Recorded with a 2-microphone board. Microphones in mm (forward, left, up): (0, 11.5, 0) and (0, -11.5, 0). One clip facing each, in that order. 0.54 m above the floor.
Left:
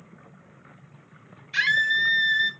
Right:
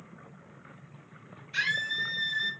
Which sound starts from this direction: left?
A scream, at 1.5 s.